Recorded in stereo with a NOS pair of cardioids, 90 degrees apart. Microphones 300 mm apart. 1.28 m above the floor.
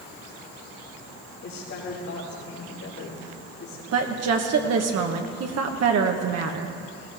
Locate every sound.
1.4 s a woman speaking: 65° left, 4 m
3.9 s a woman speaking: 55° right, 1.3 m